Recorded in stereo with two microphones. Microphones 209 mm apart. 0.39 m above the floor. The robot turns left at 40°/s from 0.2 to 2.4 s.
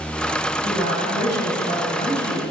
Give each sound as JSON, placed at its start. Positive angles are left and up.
{"t": 0.6, "sound": "a woman speaking", "azimuth_deg": 100, "distance_m": 2.5}